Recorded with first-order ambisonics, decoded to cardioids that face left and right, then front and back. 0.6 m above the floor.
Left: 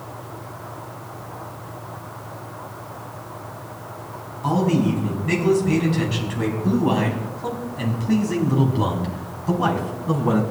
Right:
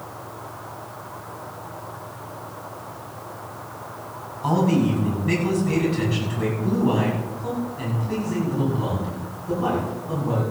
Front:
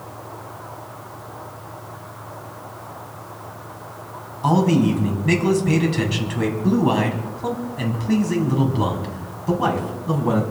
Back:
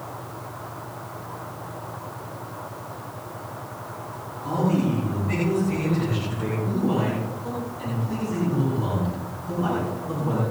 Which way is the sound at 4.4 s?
Straight ahead.